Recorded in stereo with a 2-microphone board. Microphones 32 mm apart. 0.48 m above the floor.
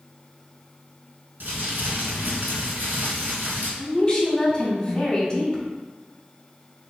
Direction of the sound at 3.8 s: 25° left (ahead or behind).